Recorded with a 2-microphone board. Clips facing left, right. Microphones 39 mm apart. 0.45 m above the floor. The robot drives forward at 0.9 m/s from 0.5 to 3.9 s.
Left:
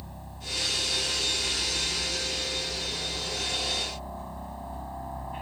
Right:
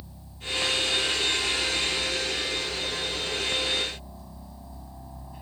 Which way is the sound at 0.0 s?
55° left (ahead or behind).